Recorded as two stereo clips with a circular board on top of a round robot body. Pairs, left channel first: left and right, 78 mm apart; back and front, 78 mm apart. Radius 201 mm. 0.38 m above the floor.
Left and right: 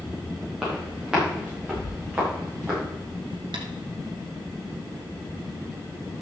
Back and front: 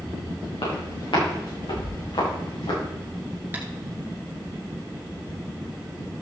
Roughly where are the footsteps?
Behind.